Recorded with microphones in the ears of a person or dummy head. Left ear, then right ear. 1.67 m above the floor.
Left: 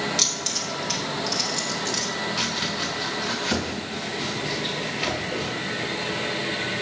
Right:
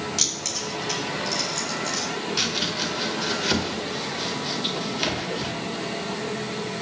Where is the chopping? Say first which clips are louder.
Right 4 dB; 35° right (ahead or behind), 1.9 m.